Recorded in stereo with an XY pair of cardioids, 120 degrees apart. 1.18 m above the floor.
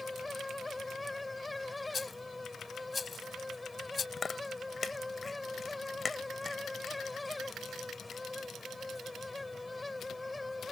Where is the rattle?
25° left.